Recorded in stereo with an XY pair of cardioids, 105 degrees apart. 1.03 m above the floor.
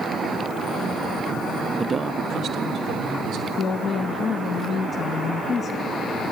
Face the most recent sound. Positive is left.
turn(degrees=55)